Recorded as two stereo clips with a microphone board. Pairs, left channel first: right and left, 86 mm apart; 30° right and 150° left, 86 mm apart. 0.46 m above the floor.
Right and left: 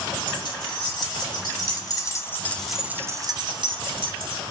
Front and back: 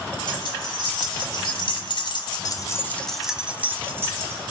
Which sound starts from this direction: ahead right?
Keys jangling, at 0.3 s.